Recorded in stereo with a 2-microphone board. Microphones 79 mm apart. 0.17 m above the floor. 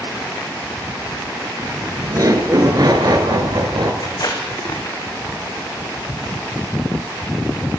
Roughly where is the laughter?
Right.